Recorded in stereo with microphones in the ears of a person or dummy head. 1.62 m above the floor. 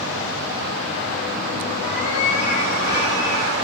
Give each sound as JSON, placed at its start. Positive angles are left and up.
{"t": 1.8, "sound": "a cat meowing", "side_deg": 40, "distance_m": 8.5}